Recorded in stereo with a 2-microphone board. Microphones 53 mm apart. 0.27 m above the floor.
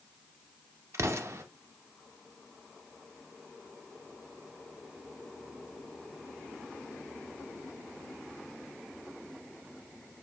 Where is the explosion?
60° right (ahead or behind), 0.5 m.